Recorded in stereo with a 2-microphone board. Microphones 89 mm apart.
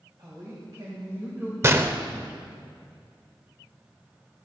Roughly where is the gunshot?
Right.